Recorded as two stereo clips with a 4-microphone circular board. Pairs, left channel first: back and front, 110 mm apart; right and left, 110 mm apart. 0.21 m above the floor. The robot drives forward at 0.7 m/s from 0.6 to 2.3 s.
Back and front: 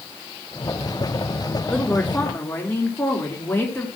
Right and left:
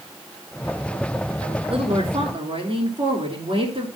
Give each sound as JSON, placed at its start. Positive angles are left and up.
{"t": 1.7, "sound": "a woman speaking", "azimuth_deg": 100, "distance_m": 3.0}